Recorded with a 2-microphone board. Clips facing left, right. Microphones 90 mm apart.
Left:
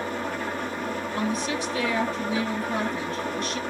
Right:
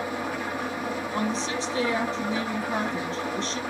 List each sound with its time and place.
0.0 s an engine running: 10° right (ahead or behind), 2 m
1.1 s a woman speaking: 25° right (ahead or behind), 2.5 m